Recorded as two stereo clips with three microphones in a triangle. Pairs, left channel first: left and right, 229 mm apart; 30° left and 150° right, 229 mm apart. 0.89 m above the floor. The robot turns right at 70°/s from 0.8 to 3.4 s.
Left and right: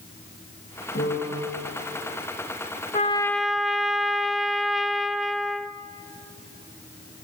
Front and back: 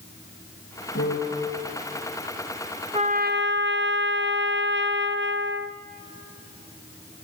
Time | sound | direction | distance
0.9 | a piano | 65° left | 6.5 m
2.9 | a trumpet | 150° left | 0.7 m